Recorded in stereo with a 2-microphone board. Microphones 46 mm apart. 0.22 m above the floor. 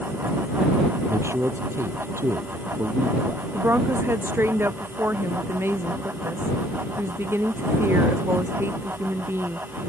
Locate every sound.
1.1 s a man speaking: 80° right; by 3.4 s 70° right (ahead or behind)
3.5 s a woman speaking: 60° right (ahead or behind)